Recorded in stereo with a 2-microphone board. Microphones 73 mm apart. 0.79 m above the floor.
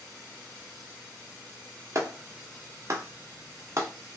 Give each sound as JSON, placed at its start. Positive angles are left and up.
{"t": 1.9, "sound": "a clap", "side_deg": -40, "distance_m": 0.7}